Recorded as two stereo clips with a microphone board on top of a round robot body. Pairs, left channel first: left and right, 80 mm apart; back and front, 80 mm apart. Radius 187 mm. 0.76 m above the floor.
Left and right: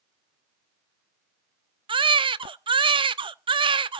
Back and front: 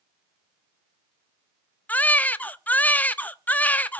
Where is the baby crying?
105° right, 0.6 m.